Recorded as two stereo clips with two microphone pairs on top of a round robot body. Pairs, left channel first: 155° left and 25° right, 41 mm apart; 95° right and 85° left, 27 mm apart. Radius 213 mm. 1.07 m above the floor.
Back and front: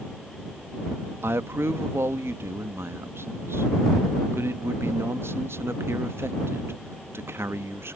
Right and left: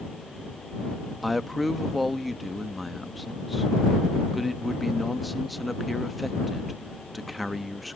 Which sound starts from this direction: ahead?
A man speaking, at 1.2 s.